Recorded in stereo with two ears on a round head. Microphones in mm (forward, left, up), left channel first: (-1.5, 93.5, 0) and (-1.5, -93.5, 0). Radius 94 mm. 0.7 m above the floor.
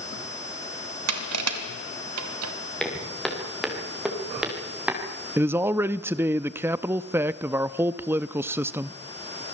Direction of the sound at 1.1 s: 85° right.